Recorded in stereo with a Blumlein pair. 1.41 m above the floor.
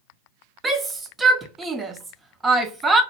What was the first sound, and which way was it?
A shout, 15° right.